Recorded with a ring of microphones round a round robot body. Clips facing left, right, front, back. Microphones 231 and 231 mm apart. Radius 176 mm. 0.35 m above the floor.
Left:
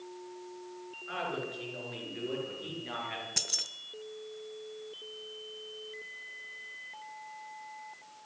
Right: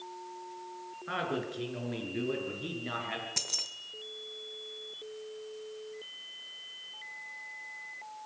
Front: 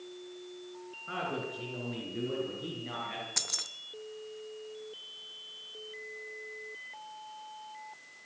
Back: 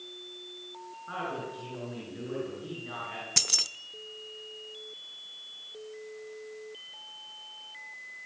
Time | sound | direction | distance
1.1 | a man speaking | 70° right | 7 m
3.4 | keys jangling | 160° left | 0.8 m